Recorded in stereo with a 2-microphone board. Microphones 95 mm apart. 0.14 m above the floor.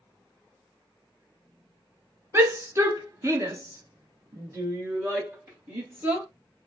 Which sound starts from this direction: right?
A shout, at 2.3 s.